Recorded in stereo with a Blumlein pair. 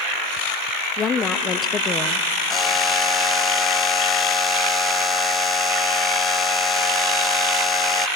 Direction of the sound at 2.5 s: 15° left.